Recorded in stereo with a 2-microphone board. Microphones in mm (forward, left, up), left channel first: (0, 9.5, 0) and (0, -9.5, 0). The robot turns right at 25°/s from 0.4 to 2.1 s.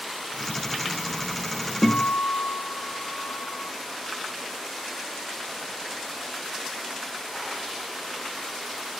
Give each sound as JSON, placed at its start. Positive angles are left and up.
{"t": 1.8, "sound": "a guitar", "side_deg": 25, "distance_m": 1.8}